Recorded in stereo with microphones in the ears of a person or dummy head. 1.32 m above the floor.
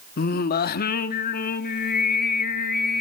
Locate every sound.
0.2 s singing: 50° left (ahead or behind), 1.1 m